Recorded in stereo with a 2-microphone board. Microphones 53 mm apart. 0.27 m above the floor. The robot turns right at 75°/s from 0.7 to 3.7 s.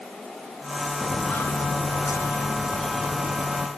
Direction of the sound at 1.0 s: 15° left (ahead or behind).